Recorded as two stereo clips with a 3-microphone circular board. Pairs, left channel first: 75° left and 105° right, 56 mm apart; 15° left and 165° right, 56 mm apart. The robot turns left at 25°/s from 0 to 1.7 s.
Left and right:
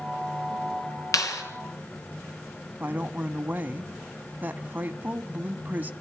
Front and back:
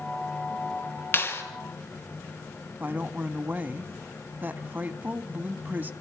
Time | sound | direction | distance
1.1 | a clap | 65° left | 3.5 m
2.8 | a woman speaking | 140° right | 1.4 m